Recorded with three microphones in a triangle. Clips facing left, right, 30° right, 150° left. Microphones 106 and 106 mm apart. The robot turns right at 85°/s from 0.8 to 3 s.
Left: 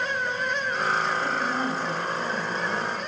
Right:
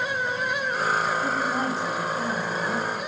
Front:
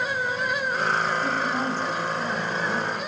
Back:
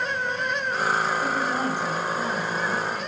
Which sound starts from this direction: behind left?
A woman speaking, at 1.2 s.